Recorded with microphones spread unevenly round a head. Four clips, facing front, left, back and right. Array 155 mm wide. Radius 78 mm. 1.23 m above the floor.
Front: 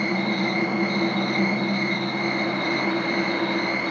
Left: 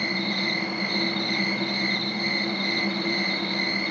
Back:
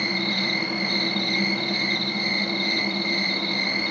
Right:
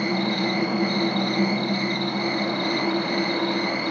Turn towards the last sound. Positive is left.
turn(degrees=-160)